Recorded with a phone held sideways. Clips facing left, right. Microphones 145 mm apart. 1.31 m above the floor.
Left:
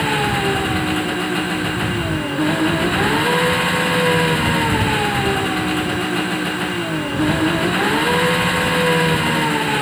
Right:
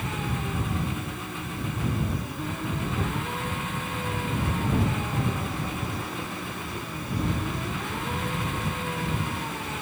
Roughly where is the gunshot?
I don't hear a gunshot.